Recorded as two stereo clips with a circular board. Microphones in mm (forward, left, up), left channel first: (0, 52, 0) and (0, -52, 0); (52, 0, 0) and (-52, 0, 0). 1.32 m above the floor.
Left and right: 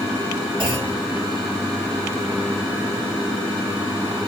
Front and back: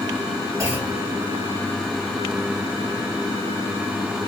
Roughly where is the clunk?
Behind right.